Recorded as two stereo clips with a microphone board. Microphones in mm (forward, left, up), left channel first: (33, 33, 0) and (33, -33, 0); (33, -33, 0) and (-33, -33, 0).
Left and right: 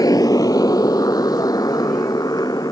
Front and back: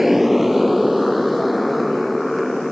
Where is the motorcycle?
95° left; by 2.7 s 90° left.